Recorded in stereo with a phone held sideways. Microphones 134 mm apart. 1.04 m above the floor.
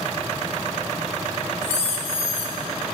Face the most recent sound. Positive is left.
turn(degrees=55)  # may be behind; listen again after turning